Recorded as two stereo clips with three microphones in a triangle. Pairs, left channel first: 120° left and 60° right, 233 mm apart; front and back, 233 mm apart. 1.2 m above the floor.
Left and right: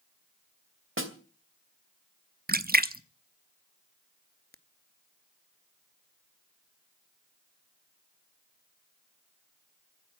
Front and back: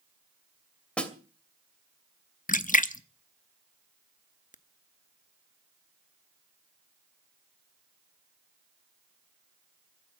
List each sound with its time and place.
1.0 s a snare drum: 85° right, 2.5 m
2.5 s a splash: 35° right, 0.8 m